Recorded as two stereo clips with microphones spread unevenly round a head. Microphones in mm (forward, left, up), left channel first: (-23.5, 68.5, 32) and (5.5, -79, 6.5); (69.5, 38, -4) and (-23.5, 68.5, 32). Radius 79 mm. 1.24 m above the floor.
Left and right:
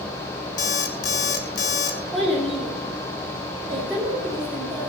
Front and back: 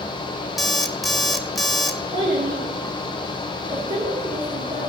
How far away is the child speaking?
About 3 m.